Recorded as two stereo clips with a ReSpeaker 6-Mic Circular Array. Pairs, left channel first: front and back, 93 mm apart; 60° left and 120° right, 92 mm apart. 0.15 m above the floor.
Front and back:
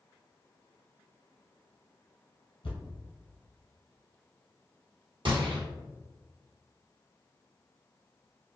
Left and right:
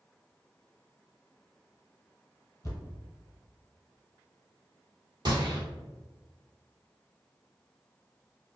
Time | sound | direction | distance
2.6 | a thud | 5° left | 1.9 m
5.2 | a gunshot | 155° right | 1.3 m